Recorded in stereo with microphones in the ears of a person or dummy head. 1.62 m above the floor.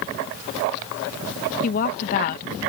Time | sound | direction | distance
1.6 | a woman speaking | 45° left (ahead or behind) | ?